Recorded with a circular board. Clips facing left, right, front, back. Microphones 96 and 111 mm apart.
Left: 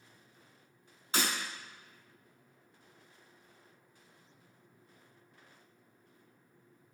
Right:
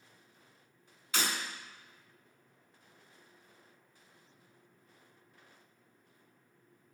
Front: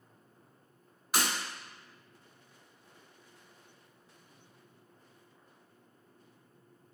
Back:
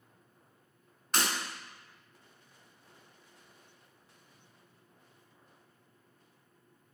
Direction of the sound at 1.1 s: 75° left.